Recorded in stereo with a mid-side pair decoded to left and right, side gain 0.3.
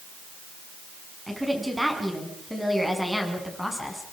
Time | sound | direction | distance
1.3 | a woman speaking | 10° right | 9.5 m